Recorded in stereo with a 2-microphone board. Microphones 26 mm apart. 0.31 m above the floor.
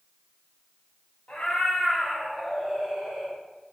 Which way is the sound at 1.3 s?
50° left (ahead or behind).